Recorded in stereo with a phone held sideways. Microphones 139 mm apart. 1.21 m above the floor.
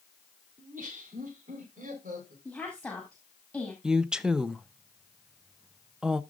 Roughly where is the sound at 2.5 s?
Centre.